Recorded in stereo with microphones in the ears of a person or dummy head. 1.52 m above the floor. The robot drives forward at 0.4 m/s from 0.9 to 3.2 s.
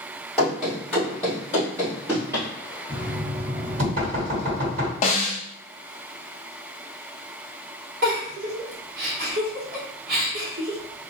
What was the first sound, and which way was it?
Running footsteps, centre (ahead or behind).